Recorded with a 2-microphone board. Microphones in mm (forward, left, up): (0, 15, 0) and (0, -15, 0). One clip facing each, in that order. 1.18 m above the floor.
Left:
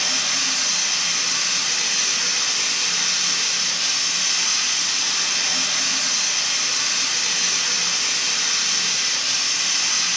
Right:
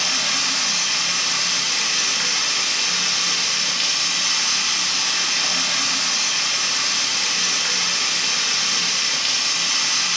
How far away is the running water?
About 0.8 m.